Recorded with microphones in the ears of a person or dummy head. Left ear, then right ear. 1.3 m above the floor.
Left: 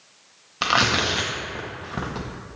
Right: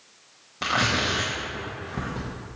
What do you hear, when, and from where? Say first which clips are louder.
0.6 s tearing paper: left 4 dB; 20° left (ahead or behind), 0.7 m